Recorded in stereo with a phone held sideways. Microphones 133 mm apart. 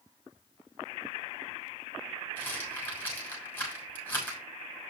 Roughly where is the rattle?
Centre.